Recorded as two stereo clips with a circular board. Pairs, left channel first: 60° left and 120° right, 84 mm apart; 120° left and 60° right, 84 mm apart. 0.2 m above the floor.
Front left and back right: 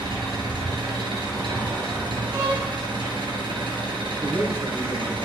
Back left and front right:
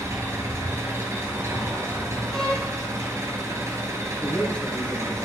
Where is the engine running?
115° right, 2.5 m.